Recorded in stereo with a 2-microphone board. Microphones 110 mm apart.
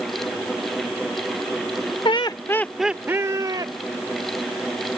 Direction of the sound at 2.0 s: 50° left (ahead or behind).